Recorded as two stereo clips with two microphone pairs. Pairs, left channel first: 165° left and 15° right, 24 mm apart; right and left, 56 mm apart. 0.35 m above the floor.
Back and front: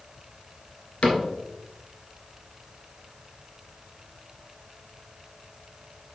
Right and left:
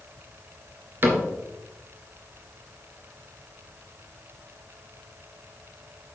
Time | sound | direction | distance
1.0 | a cupboard door | 140° left | 2.5 m